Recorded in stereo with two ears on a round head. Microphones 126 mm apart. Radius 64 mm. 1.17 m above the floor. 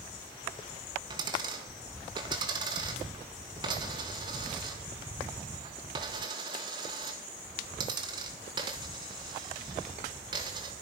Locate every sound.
1.1 s a dropped coin: 30° right (ahead or behind), 2 m